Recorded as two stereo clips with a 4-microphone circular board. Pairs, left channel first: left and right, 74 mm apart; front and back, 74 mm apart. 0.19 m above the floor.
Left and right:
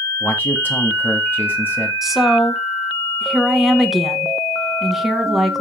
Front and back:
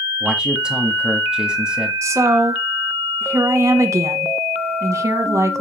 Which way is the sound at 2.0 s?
Straight behind.